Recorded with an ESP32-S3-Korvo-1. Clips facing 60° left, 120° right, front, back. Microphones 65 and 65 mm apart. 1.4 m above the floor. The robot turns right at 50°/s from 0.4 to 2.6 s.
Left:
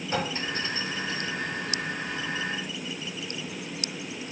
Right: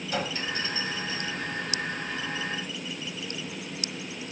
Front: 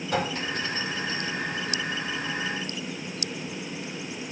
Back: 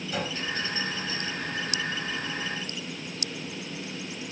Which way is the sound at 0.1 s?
5° left.